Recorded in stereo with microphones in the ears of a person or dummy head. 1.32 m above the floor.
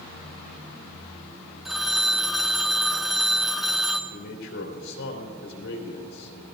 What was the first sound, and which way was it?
A phone ringing, 5° right (ahead or behind).